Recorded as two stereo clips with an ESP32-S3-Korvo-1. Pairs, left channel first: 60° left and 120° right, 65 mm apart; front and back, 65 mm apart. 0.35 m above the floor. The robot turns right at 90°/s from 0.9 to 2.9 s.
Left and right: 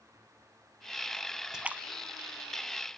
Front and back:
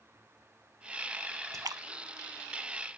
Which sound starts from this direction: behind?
A splash, at 1.5 s.